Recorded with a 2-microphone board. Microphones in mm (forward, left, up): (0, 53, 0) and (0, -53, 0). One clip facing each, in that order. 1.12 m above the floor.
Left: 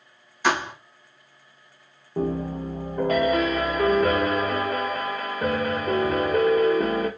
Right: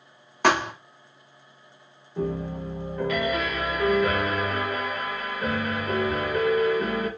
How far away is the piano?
About 0.9 m.